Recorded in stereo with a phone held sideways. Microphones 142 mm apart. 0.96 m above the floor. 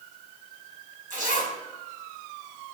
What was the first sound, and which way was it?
A zipper, 65° right (ahead or behind).